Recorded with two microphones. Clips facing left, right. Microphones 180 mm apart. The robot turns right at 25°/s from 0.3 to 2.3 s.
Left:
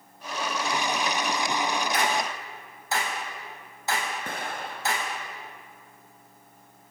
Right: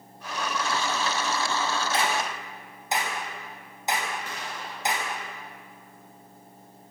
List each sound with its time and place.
1.9 s a clap: 25° right (ahead or behind), 4.5 m; by 5.1 s 20° right (ahead or behind), 4.5 m
4.3 s an explosion: 55° left (ahead or behind), 1.9 m